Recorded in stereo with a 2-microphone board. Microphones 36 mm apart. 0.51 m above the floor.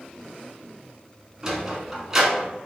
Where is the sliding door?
15° right (ahead or behind), 0.8 m.